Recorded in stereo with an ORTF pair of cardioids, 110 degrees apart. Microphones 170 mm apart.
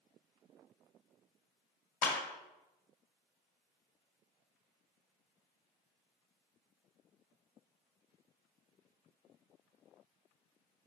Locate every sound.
2.0 s a clap: 55° left, 1.4 m